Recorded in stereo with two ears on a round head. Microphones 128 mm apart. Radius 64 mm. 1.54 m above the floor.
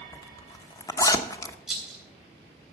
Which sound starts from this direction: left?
A zipper, at 0.1 s.